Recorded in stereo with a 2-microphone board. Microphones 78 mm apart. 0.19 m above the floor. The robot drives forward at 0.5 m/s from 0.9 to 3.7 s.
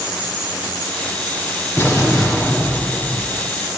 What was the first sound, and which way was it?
An explosion, 35° left (ahead or behind).